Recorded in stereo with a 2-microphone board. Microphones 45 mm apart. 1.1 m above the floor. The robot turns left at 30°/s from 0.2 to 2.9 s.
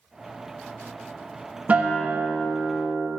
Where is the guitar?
140° right, 0.8 m; by 3.1 s straight behind, 0.8 m.